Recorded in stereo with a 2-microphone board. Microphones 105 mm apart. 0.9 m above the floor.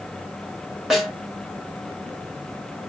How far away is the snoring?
No snoring in this recording.